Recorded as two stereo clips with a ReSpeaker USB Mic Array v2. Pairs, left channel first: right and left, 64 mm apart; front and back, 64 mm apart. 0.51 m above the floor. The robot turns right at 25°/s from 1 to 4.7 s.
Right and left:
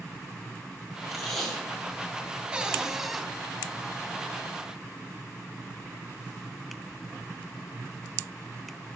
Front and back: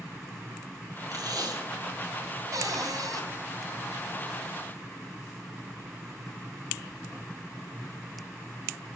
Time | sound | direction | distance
1.1 | tape being pulled | straight behind | 7 m
2.5 | a cupboard door | 160° left | 3 m